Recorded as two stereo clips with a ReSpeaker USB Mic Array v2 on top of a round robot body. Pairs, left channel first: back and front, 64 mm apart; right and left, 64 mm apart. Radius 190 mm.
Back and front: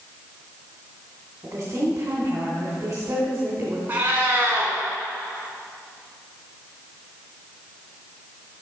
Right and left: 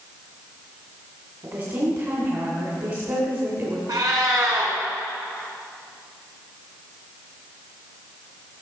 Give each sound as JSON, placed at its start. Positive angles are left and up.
{"t": 1.4, "sound": "a woman speaking", "azimuth_deg": 50, "distance_m": 2.5}
{"t": 3.9, "sound": "a cat meowing", "azimuth_deg": 65, "distance_m": 2.0}